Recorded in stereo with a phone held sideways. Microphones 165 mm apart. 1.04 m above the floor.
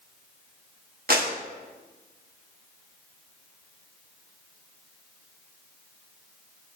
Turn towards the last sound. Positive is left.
turn(degrees=-65)  # may be behind; listen again after turning